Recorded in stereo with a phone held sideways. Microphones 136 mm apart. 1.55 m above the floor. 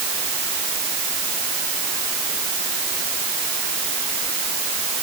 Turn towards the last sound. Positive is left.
No sound to turn to.